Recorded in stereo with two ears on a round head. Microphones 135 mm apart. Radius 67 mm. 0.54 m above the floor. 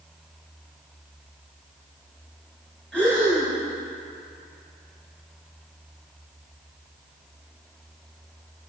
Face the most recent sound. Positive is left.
turn(degrees=5)  # may be behind; listen again after turning